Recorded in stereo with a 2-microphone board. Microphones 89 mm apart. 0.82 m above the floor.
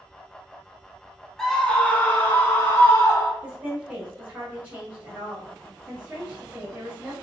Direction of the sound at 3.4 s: 25° right (ahead or behind).